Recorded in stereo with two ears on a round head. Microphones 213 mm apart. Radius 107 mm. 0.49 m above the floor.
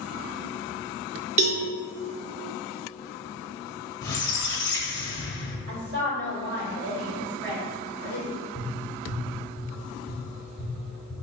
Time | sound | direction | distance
1.4 | a cowbell | 30° right (ahead or behind) | 0.7 m
4.0 | a squeak | 15° left (ahead or behind) | 0.7 m
5.7 | a woman speaking | 50° right (ahead or behind) | 1.8 m
8.6 | tapping | 20° left (ahead or behind) | 1.4 m